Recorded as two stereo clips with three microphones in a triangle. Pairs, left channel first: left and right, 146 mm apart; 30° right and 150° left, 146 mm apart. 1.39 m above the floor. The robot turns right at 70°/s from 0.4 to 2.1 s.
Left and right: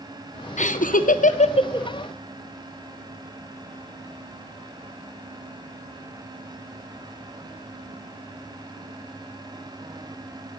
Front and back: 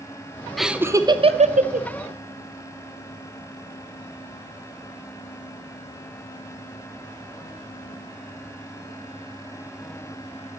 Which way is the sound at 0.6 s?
60° left.